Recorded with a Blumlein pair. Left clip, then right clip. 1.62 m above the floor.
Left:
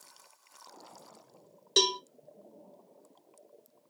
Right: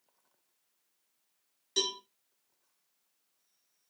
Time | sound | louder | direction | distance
1.8 | a cowbell | left 6 dB | 30° left | 0.7 m